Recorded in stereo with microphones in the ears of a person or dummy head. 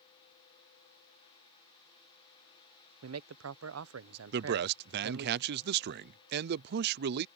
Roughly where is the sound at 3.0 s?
Right.